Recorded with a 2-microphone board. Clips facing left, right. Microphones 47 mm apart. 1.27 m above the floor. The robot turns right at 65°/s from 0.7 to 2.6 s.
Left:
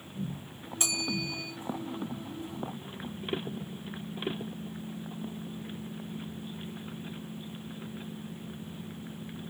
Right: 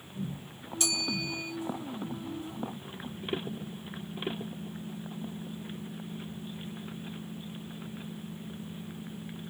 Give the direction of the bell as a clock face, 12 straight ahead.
7 o'clock.